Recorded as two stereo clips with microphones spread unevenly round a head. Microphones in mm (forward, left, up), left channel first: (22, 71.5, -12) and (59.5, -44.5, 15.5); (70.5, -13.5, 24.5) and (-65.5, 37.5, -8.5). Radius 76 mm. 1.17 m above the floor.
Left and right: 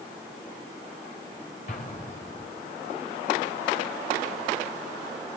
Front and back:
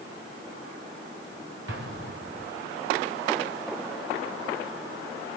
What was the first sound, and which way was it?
An explosion, 155° left.